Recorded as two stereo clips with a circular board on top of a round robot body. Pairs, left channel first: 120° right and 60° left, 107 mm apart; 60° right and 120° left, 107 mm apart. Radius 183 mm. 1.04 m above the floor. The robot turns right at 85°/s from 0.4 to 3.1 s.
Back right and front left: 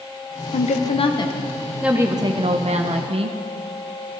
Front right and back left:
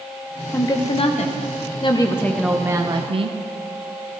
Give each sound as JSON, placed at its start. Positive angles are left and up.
{"t": 0.5, "sound": "a woman speaking", "azimuth_deg": -130, "distance_m": 0.9}